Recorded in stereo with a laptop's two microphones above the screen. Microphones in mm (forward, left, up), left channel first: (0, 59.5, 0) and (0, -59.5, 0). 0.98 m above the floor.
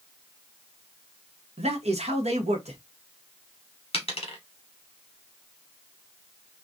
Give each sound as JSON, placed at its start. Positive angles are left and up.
{"t": 1.6, "sound": "a man speaking", "side_deg": -65, "distance_m": 1.2}
{"t": 3.9, "sound": "a dropped coin", "side_deg": 50, "distance_m": 1.0}